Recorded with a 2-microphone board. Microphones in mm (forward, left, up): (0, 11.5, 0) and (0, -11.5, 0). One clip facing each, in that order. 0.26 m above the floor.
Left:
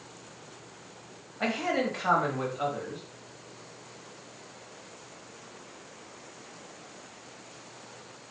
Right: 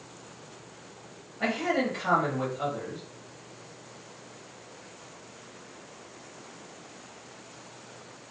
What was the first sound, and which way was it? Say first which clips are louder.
A man speaking: right 1 dB; 20° left (ahead or behind).